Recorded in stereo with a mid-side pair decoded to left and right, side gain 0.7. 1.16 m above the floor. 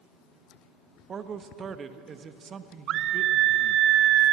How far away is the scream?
About 0.9 m.